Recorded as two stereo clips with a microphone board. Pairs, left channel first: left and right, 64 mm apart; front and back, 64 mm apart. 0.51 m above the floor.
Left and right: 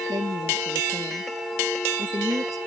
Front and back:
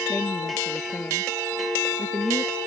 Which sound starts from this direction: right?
A woman speaking, at 0.1 s.